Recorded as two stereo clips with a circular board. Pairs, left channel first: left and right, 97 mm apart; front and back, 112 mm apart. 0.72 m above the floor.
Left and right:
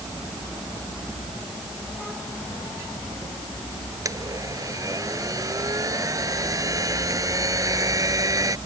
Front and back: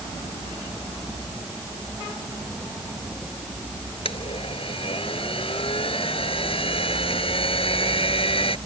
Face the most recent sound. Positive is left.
turn(degrees=-35)